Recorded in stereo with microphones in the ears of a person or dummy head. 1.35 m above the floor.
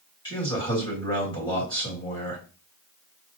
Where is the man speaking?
25° left (ahead or behind), 1.7 m.